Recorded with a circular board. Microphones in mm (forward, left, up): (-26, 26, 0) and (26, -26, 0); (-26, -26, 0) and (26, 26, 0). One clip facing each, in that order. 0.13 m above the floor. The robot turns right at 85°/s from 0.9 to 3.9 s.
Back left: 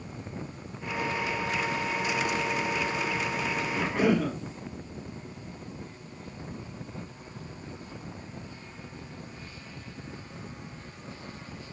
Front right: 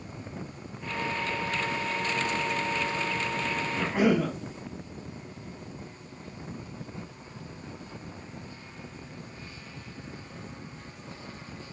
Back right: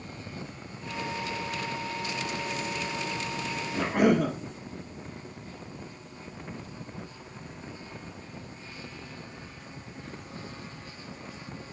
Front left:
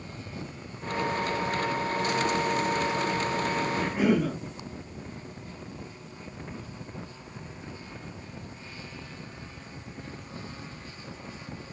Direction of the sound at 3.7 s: 130° right.